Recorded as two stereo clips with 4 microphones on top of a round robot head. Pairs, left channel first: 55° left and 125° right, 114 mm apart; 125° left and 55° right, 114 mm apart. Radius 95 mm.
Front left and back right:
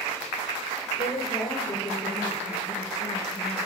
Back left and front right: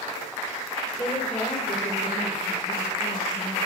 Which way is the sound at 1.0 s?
95° left.